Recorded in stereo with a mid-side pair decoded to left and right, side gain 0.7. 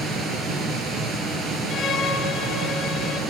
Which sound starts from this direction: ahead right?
A machine running, at 0.0 s.